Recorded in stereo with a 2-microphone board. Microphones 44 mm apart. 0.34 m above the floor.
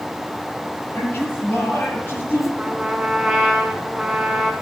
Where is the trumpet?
10° right (ahead or behind), 3 m.